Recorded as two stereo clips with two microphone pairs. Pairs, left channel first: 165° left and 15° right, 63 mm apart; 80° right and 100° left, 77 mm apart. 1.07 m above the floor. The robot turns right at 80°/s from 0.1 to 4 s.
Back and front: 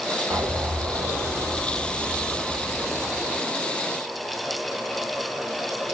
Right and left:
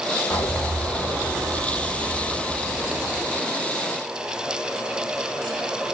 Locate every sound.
0.3 s an explosion: 65° right, 3 m; by 3.4 s straight behind, 3 m